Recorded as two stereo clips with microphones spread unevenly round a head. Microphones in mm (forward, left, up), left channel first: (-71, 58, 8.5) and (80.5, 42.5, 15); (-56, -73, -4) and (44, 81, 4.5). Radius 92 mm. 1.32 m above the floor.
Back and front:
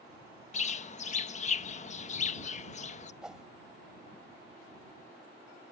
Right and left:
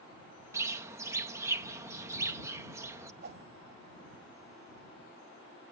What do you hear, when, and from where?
0.5 s a bird: 130° left
3.2 s a whoosh: 80° left